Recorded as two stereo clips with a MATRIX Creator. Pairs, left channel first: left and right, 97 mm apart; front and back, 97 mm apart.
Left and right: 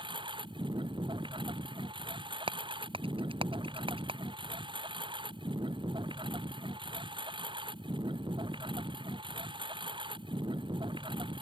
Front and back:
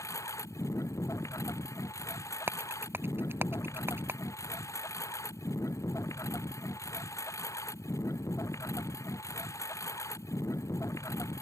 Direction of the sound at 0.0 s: 60° right.